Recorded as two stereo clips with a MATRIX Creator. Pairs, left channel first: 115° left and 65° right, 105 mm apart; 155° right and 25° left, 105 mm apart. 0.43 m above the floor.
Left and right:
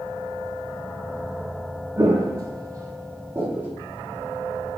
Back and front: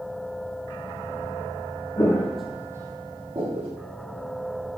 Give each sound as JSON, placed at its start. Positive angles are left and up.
{"t": 2.0, "sound": "footsteps", "azimuth_deg": -115, "distance_m": 0.6}